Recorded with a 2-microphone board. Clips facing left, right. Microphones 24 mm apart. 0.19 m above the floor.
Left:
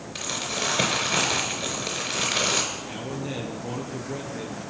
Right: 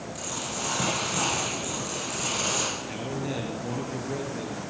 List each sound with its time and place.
0.1 s crumpling: 65° left (ahead or behind), 3.5 m
2.8 s a man speaking: centre (ahead or behind), 3 m